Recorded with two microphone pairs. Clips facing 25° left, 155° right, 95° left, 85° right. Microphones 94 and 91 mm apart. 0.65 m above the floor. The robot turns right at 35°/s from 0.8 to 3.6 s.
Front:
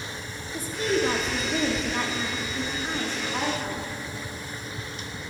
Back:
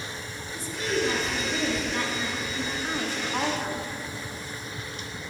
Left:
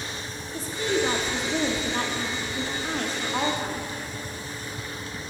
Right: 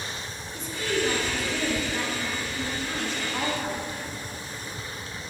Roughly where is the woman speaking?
Ahead left.